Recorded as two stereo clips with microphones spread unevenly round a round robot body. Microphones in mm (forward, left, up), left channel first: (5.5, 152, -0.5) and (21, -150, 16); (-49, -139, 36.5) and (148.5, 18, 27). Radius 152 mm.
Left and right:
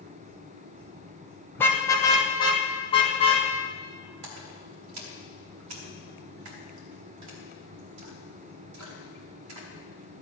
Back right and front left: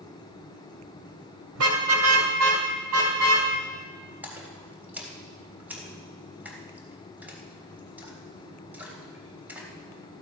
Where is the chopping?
I don't hear chopping.